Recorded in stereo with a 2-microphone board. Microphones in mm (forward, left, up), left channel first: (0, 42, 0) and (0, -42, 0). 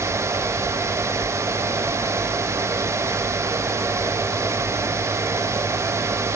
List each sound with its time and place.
Only background noise.